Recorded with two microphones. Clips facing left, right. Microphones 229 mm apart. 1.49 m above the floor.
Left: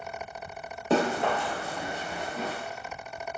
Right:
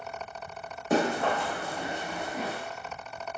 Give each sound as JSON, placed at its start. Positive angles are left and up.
{"t": 0.9, "sound": "running footsteps", "side_deg": 25, "distance_m": 1.7}